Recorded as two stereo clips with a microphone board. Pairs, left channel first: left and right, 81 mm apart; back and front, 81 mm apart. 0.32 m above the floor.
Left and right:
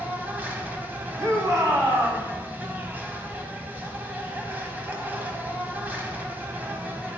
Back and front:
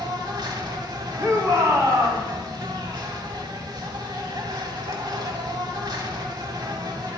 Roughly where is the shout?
Ahead right.